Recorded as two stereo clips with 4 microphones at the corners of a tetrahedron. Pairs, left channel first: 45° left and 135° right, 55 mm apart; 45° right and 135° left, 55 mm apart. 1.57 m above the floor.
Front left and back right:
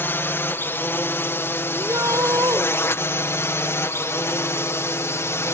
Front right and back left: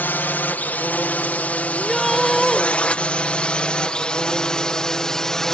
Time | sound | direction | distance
0.0 | a drone | 5° left | ?
1.7 | a shout | 135° right | ?